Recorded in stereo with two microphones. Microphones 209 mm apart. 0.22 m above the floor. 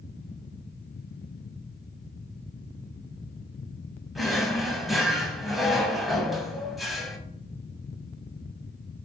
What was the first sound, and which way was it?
A drawer, centre (ahead or behind).